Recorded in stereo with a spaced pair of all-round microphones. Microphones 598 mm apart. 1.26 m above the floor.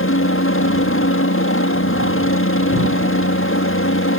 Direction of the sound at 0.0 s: 20° left (ahead or behind).